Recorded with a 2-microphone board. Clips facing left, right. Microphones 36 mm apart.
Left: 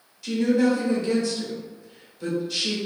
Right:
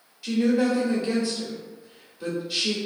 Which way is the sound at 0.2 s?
15° right (ahead or behind).